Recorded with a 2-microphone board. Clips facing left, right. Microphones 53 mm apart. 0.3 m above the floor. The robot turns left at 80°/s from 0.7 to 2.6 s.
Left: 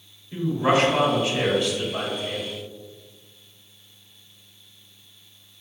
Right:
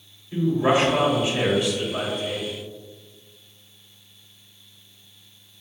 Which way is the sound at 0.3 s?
20° right (ahead or behind).